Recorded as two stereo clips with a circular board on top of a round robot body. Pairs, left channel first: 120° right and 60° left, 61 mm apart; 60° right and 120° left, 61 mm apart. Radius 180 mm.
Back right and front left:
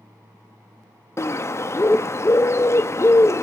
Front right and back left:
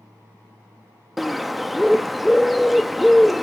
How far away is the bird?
About 0.7 m.